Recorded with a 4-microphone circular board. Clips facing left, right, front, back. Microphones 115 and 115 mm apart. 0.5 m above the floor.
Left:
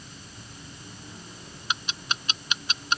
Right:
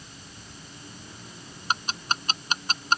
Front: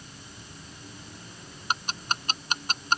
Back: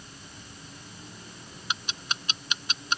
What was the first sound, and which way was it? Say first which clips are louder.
Ticking: right 4 dB, front 5 dB; 40° right.